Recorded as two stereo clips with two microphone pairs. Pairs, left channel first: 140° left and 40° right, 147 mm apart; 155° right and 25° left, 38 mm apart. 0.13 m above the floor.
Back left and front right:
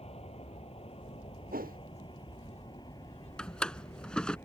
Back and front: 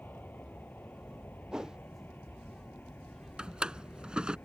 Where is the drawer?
60° left.